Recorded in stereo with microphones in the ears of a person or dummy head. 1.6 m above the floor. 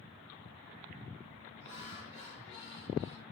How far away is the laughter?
About 2.5 m.